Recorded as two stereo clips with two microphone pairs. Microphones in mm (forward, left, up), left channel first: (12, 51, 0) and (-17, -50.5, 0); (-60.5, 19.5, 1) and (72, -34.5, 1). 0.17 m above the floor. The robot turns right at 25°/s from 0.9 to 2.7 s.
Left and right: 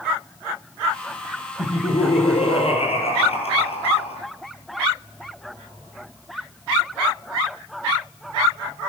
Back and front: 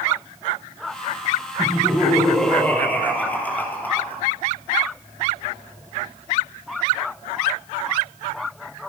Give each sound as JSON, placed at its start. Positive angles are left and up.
{"t": 1.6, "sound": "laughter", "azimuth_deg": 50, "distance_m": 4.0}